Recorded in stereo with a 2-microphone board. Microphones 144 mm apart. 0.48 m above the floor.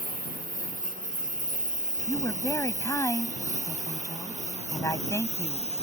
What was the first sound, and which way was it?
A lawn mower, 75° right (ahead or behind).